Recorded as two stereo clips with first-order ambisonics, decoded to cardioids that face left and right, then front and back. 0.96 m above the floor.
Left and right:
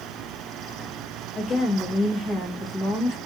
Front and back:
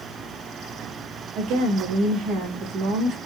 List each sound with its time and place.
1.4 s a woman speaking: 155° left, 1.7 m